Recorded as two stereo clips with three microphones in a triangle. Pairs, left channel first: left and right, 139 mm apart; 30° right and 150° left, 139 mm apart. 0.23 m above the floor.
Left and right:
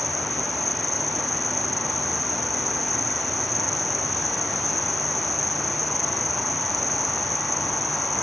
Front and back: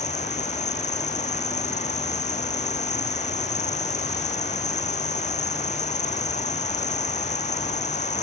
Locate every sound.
0.0 s an insect: straight ahead